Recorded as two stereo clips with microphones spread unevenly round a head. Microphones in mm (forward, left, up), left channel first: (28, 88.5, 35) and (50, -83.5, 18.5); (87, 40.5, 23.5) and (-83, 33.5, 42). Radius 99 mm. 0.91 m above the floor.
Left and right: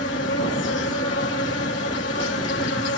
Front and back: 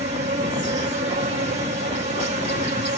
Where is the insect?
135° left, 2 m.